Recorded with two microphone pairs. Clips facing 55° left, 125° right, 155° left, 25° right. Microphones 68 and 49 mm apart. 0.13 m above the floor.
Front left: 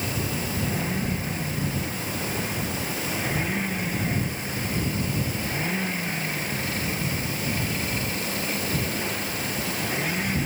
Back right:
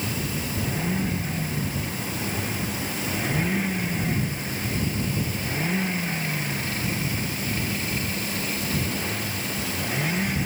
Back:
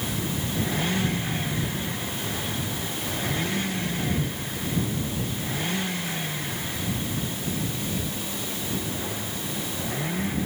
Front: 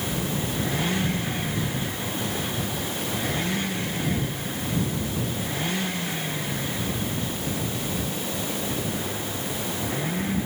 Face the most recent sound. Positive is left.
No sound to turn to.